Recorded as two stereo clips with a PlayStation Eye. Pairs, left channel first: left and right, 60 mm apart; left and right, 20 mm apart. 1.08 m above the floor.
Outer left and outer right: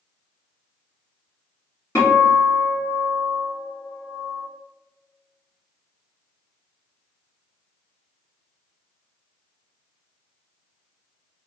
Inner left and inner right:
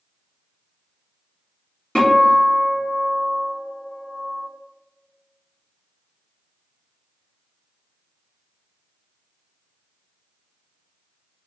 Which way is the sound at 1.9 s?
50° left (ahead or behind).